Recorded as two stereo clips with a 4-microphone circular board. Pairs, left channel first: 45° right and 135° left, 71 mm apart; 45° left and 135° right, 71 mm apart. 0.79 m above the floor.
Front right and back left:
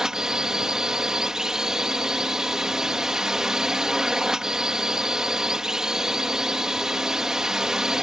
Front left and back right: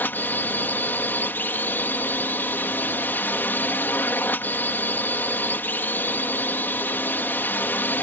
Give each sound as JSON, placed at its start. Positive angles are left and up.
{"t": 0.0, "sound": "a drone", "azimuth_deg": 60}